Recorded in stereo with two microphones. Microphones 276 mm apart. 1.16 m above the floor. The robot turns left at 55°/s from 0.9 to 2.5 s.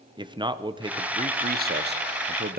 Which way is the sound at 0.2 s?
30° right.